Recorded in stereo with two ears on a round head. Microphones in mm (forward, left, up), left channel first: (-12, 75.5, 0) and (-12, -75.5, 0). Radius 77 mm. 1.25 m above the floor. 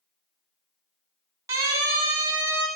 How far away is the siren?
About 8.5 m.